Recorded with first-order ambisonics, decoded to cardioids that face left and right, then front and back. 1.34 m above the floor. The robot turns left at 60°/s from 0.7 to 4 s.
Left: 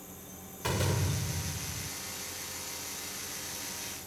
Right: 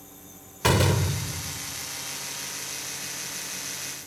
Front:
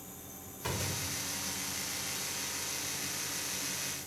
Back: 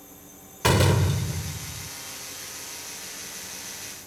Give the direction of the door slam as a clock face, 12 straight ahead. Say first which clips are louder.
Right 9 dB, back 14 dB; 5 o'clock.